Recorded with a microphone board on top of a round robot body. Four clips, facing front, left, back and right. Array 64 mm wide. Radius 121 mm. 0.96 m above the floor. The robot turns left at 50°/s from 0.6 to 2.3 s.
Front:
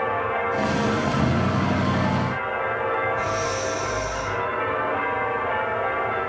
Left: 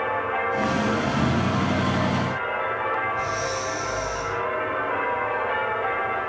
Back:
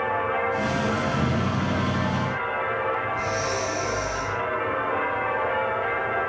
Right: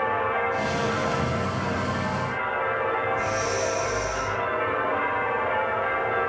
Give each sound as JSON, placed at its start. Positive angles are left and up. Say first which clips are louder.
{"t": 3.1, "sound": "breathing", "louder": "right 1 dB, front 1 dB", "azimuth_deg": -135, "distance_m": 6.0}